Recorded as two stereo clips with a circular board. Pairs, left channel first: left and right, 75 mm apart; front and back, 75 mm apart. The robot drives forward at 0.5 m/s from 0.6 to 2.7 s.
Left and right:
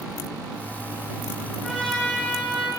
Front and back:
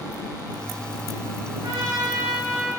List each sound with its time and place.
1.6 s a trumpet: 175° left, 2.5 m